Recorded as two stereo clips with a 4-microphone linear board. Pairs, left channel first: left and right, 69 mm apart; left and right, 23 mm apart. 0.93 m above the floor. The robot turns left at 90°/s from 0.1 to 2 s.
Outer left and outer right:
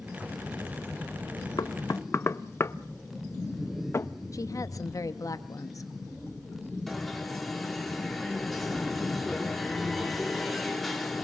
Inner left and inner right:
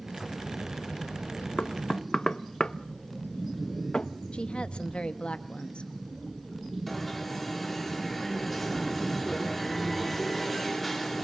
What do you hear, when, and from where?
1.6 s knocking: 65° left (ahead or behind), 0.7 m; by 4.1 s 40° left (ahead or behind), 0.7 m
4.3 s a woman speaking: 55° left (ahead or behind), 1.2 m
6.9 s an alarm: 5° left (ahead or behind), 4.5 m